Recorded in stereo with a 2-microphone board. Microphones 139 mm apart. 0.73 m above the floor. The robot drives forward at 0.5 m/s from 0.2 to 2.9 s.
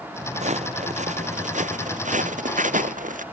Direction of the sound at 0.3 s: 55° right (ahead or behind).